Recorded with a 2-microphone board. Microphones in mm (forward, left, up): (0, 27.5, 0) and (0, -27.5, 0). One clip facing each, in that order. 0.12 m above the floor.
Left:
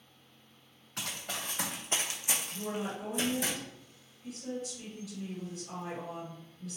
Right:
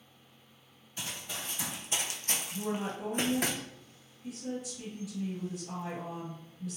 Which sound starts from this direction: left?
Running footsteps, at 1.0 s.